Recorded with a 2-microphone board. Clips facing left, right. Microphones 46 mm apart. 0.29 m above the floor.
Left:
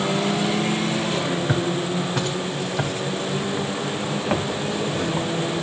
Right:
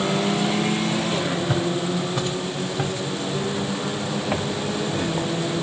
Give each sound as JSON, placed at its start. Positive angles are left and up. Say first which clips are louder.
{"t": 1.5, "sound": "footsteps", "louder": "even", "side_deg": 75, "distance_m": 8.5}